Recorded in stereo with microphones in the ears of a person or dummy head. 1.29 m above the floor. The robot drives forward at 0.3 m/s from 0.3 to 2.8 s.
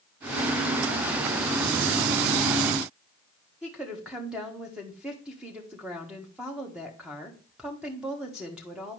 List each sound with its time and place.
3.6 s a woman speaking: 5° right (ahead or behind), 1.4 m